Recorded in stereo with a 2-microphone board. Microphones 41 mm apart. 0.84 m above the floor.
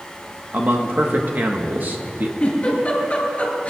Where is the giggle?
35° left (ahead or behind), 4.5 m.